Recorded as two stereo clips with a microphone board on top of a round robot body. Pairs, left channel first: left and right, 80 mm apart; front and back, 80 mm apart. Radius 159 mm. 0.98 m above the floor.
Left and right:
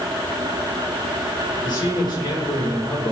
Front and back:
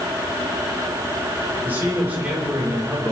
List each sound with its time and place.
1.6 s a man speaking: 110° left, 5 m